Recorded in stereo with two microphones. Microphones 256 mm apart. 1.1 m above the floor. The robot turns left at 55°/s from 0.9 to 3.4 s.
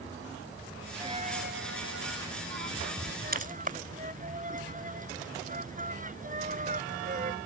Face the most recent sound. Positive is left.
turn(degrees=-30)  # may be behind; listen again after turning